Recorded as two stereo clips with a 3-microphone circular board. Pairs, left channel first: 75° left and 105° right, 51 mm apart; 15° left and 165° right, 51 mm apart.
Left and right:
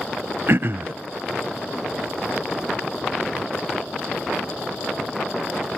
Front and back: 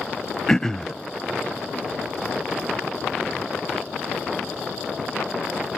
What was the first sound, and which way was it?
Throat clearing, 65° right.